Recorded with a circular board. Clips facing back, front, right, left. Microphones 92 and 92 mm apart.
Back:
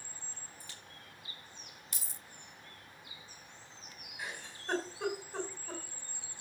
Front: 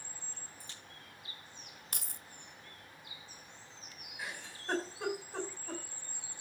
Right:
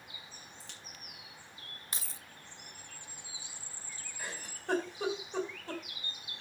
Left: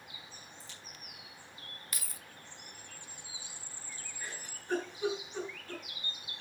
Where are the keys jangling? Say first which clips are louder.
Front 5 dB, right 3 dB; 30° right, 0.5 m.